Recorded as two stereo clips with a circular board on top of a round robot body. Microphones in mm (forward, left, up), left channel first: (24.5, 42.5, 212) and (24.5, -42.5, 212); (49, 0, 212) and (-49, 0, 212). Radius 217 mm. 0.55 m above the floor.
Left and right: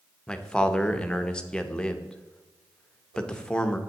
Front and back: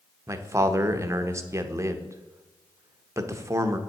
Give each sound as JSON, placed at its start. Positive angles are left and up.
{"t": 0.3, "sound": "a man speaking", "azimuth_deg": 160, "distance_m": 0.9}